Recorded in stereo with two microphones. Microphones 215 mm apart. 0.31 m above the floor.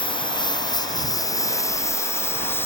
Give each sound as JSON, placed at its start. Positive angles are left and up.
{"t": 0.0, "sound": "a lawn mower", "side_deg": 20}